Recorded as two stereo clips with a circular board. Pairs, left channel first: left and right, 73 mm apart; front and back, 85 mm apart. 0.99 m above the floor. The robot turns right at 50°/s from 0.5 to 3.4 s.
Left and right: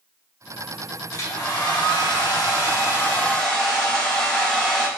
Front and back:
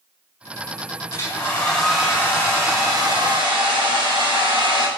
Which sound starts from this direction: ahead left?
A hair dryer, at 1.1 s.